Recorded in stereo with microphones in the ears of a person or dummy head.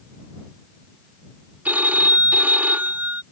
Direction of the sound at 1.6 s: 5° right (ahead or behind).